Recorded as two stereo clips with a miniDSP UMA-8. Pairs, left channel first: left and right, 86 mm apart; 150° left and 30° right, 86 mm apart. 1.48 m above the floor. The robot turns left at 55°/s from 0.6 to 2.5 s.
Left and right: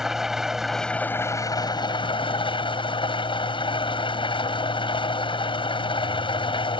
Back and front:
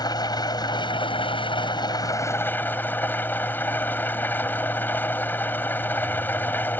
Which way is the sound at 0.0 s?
175° right.